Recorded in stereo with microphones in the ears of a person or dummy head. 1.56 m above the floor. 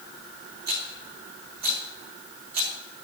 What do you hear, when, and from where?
0.7 s a rattle: 55° right (ahead or behind), 2 m